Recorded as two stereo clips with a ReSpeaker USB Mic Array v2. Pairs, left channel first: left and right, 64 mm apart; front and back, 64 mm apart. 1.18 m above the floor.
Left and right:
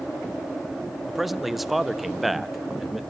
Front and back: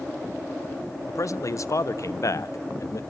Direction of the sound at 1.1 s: Straight ahead.